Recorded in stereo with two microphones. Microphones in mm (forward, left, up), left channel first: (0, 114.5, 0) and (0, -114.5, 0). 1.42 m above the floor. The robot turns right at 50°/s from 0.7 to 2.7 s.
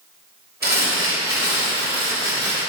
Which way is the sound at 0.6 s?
135° right.